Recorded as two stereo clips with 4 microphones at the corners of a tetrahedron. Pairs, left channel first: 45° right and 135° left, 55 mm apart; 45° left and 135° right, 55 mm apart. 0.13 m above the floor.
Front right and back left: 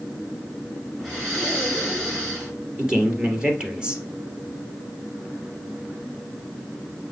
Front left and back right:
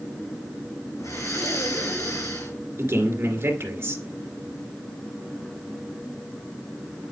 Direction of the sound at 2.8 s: 155° right.